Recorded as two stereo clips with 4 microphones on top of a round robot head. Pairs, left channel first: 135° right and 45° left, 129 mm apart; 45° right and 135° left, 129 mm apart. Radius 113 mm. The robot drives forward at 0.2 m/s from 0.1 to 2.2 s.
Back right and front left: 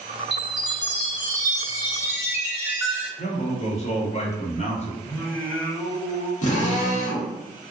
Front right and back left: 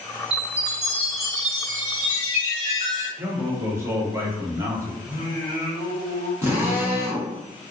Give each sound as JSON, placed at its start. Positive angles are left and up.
{"t": 0.3, "sound": "a chime", "azimuth_deg": 90, "distance_m": 0.9}
{"t": 3.2, "sound": "a man speaking", "azimuth_deg": -155, "distance_m": 0.9}
{"t": 5.0, "sound": "singing", "azimuth_deg": 155, "distance_m": 1.6}
{"t": 6.4, "sound": "a drill", "azimuth_deg": -150, "distance_m": 1.0}